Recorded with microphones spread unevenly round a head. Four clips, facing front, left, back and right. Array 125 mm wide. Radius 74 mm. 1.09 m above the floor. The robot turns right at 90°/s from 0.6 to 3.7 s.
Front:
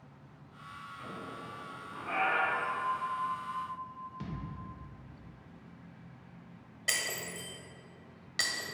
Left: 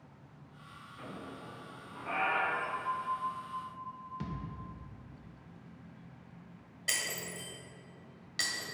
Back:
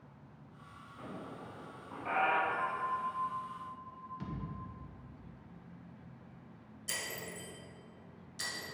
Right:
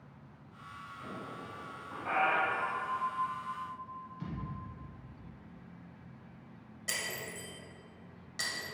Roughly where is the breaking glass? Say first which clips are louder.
Left 1 dB, front 5 dB; ahead.